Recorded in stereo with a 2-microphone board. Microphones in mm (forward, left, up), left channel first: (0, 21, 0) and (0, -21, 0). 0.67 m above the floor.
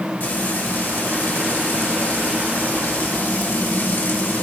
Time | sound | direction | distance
0.2 | frying | 55° left (ahead or behind) | 1.9 m